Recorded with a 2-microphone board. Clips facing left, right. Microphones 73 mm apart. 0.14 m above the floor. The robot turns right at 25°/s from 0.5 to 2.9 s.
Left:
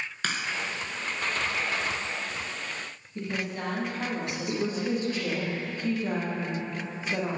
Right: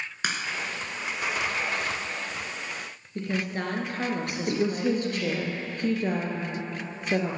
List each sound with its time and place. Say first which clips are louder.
0.2 s a crack: right 1 dB; 15° right (ahead or behind), 1.7 m
3.1 s a woman speaking: right 3 dB; 55° right (ahead or behind), 2.5 m
4.5 s a woman speaking: right 4 dB; 60° right (ahead or behind), 2.5 m